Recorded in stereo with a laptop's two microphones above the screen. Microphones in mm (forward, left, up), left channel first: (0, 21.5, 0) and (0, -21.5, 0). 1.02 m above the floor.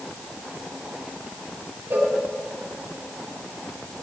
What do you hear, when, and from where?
1.9 s a cowbell: 60° right (ahead or behind), 1.9 m